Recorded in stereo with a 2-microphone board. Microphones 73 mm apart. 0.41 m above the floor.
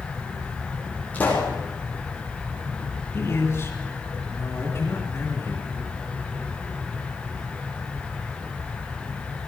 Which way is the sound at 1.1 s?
20° left (ahead or behind).